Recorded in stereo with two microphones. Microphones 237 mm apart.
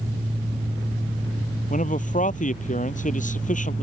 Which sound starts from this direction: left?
A man speaking, at 1.7 s.